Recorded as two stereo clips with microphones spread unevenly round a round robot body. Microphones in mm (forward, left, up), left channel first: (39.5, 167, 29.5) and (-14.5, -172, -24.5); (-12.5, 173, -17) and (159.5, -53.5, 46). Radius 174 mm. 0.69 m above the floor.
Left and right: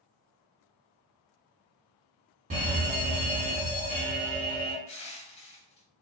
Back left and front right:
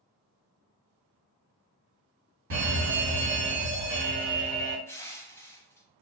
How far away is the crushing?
About 0.8 m.